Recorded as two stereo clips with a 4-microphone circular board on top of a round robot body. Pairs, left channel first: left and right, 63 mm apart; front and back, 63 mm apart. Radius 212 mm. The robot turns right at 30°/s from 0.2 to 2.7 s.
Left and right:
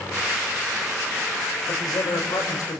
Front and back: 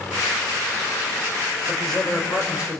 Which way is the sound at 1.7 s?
75° left.